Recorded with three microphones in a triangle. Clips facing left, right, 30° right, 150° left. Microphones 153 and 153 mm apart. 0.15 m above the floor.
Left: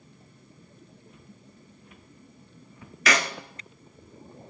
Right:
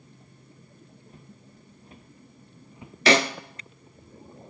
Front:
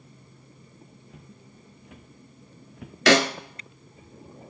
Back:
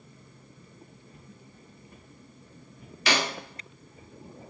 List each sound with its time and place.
1.1 s footsteps: 35° right, 1.7 m; by 3.0 s 15° right, 0.8 m
3.1 s a snare drum: 30° right, 0.5 m